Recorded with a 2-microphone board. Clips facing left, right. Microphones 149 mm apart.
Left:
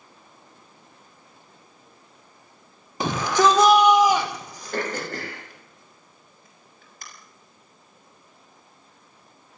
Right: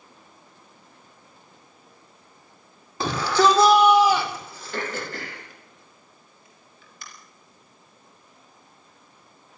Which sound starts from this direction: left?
Throat clearing, at 4.7 s.